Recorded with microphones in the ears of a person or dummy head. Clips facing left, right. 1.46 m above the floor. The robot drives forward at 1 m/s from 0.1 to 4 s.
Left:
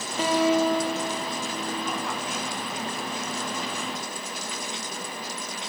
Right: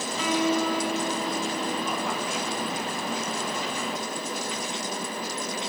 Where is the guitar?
30° left (ahead or behind), 1.0 m; by 2.3 s 10° left (ahead or behind), 3 m.